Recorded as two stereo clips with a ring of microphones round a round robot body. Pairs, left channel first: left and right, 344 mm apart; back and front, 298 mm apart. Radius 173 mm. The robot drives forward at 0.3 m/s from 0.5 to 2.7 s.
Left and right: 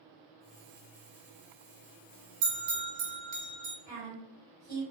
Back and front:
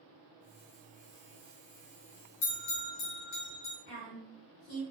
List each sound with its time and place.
2.4 s a bell: 145° right, 1.1 m; by 3.8 s 150° right, 1.2 m
3.9 s a woman speaking: 165° left, 1.8 m